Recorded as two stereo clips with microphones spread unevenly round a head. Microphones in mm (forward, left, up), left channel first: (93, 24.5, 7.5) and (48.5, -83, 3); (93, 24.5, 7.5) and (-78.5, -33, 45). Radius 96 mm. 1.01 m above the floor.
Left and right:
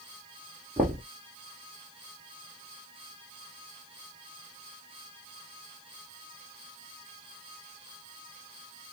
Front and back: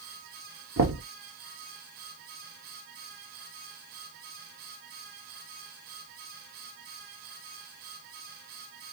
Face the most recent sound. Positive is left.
turn(degrees=180)